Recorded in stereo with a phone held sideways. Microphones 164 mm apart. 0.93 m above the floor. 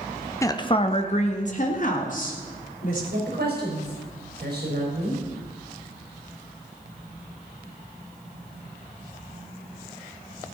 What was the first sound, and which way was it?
A woman speaking, 15° left (ahead or behind).